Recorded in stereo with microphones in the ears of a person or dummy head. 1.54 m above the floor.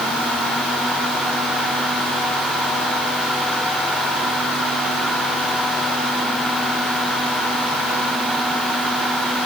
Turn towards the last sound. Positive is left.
No sound to turn to.